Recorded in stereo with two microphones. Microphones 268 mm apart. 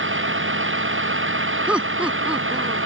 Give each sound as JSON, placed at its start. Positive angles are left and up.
{"t": 0.0, "sound": "a vehicle", "side_deg": -50}
{"t": 1.7, "sound": "laughter", "side_deg": -5}